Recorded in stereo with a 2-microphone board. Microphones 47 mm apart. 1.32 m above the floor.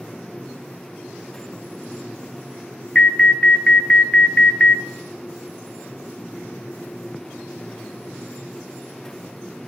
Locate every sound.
3.0 s an alarm: 20° left (ahead or behind), 1.0 m